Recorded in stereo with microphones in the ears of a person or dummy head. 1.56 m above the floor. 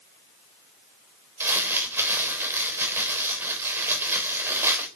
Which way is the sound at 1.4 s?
15° right (ahead or behind).